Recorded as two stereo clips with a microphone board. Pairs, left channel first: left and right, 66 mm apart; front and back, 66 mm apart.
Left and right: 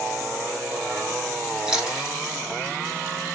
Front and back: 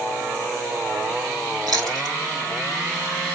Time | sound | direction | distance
1.7 | chewing | 175° right | 3 m